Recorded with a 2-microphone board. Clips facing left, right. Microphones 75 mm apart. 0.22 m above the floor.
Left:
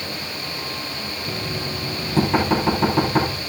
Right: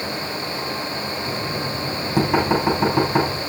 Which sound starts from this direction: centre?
Knocking, at 1.3 s.